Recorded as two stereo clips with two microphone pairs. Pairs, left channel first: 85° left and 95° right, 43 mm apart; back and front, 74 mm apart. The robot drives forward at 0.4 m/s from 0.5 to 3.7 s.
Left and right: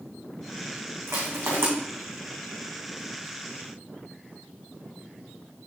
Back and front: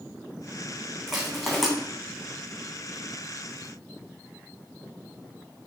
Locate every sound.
1.1 s crushing: 85° right, 3.5 m; by 1.7 s 90° right, 3.5 m